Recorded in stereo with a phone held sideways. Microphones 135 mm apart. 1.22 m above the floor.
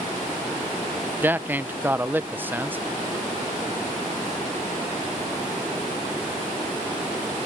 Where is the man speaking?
15° right (ahead or behind).